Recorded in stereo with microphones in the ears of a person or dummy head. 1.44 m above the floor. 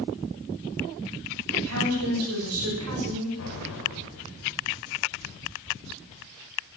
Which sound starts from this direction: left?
An explosion, at 3.4 s.